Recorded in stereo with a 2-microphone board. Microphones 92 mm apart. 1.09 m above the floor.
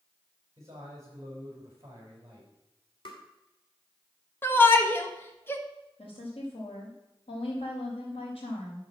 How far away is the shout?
About 1.4 m.